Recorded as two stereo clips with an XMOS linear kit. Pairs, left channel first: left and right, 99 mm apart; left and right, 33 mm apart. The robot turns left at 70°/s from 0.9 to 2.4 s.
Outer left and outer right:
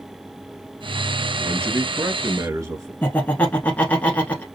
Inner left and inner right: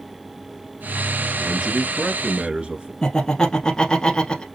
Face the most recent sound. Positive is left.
turn(degrees=20)  # may be behind; listen again after turning